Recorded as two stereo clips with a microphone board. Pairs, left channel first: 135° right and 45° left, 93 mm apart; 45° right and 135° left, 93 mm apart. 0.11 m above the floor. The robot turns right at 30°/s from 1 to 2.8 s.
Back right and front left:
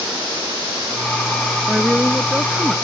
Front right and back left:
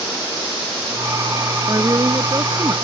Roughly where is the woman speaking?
Behind left.